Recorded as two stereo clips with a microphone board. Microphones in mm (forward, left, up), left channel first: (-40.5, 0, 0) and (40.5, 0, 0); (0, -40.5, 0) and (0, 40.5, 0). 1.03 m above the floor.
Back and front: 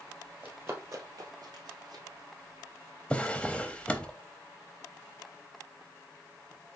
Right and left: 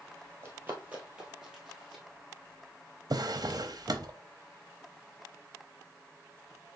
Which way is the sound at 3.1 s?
105° left.